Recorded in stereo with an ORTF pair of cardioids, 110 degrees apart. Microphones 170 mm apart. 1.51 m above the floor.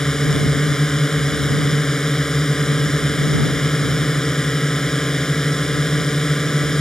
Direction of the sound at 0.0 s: 5° left.